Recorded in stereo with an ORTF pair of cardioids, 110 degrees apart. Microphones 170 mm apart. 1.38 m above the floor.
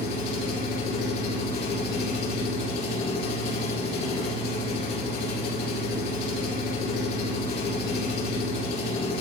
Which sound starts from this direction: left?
An engine running, at 0.0 s.